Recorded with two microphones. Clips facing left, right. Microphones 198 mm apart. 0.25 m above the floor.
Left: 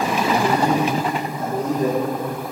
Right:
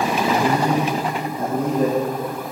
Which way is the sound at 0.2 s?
55° right (ahead or behind).